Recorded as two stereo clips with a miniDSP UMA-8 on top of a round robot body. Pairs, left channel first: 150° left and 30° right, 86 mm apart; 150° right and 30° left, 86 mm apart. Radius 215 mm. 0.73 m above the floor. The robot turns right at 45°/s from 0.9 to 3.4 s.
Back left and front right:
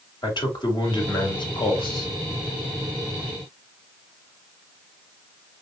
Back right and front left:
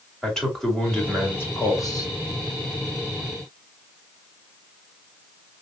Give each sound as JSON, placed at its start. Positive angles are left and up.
{"t": 0.2, "sound": "a man speaking", "azimuth_deg": 125, "distance_m": 2.0}